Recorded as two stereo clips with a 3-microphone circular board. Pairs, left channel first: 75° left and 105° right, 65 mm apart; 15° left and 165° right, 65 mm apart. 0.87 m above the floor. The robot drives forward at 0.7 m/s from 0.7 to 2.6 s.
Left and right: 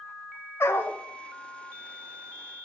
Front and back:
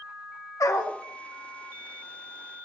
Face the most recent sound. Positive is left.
turn(degrees=90)